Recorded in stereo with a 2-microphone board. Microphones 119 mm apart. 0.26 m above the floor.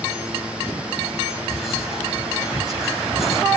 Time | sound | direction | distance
1.5 | whispering | centre (ahead or behind) | 1.1 m